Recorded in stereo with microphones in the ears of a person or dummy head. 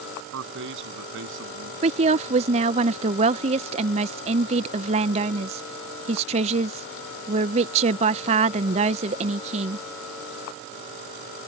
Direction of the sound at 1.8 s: 25° right (ahead or behind).